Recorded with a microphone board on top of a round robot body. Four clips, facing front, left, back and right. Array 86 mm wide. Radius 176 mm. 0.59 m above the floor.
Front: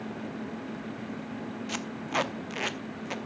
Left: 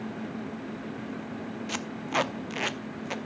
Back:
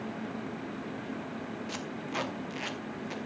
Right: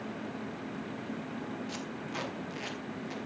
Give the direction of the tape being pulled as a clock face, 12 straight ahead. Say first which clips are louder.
Left 7 dB, front 6 dB; 10 o'clock.